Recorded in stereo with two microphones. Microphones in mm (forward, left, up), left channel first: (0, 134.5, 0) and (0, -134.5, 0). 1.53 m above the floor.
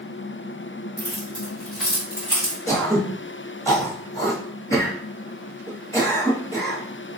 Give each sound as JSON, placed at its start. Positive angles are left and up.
{"t": 1.0, "sound": "keys jangling", "side_deg": 35, "distance_m": 1.8}
{"t": 2.7, "sound": "throat clearing", "side_deg": 10, "distance_m": 1.1}